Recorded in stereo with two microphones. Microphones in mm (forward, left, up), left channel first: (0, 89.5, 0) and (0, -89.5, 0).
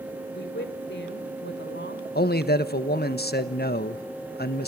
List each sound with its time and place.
0.3 s a woman speaking: 85° left, 3.5 m
2.1 s a man speaking: 60° left (ahead or behind), 1.3 m